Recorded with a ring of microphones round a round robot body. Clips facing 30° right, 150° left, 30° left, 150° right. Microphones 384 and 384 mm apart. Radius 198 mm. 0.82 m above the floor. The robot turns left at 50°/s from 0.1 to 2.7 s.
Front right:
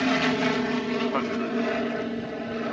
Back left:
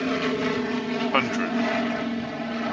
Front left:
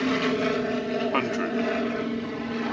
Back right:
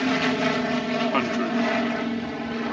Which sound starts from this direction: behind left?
A man speaking, at 1.1 s.